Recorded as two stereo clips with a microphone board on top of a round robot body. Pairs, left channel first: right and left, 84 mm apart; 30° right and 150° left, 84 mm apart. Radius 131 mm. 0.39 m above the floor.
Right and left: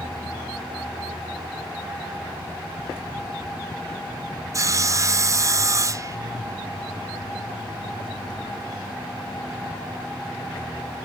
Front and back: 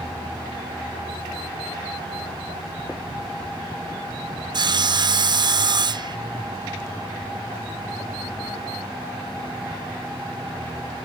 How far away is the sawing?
About 0.7 m.